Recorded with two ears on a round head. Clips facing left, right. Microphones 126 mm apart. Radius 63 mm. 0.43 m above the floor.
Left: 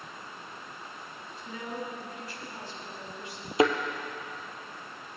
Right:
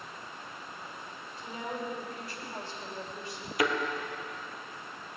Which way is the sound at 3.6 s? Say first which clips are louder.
Left 6 dB; 25° left (ahead or behind).